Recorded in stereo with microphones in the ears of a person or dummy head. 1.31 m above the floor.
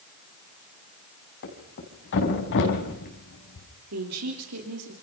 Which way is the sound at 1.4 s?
60° left (ahead or behind).